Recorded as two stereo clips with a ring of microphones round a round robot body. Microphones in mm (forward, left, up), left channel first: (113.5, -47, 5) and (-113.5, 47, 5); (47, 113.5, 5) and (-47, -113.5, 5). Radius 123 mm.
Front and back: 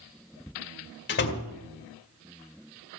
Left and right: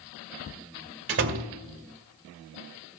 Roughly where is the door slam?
Right.